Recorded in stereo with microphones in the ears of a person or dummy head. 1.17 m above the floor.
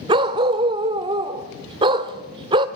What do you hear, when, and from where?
0.1 s a dog barking: 25° right (ahead or behind), 1.4 m